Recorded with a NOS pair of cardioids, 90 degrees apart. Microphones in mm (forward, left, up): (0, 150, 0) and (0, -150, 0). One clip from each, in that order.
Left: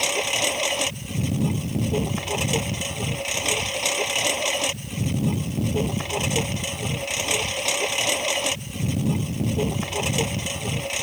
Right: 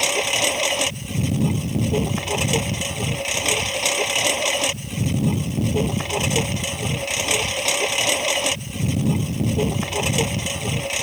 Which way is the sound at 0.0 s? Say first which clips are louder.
Right 3 dB; 15° right.